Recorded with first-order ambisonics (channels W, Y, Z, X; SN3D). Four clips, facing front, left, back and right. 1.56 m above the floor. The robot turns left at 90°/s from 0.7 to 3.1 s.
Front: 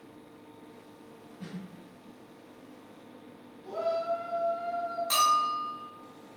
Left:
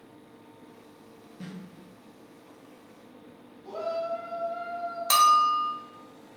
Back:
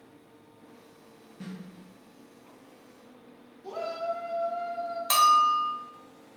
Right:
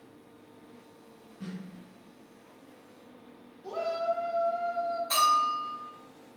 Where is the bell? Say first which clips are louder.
Left 5 dB, back 5 dB; 120° left, 0.6 m.